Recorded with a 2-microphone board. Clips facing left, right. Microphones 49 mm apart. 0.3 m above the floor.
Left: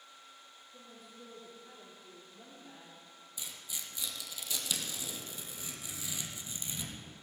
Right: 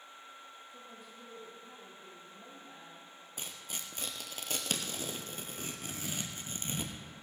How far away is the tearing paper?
About 1.4 m.